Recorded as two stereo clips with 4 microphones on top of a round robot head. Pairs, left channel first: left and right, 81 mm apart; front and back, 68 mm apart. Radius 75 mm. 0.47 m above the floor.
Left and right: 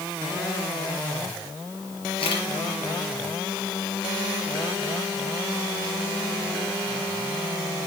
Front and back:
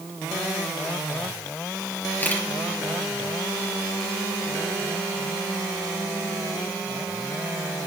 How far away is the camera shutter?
About 4 m.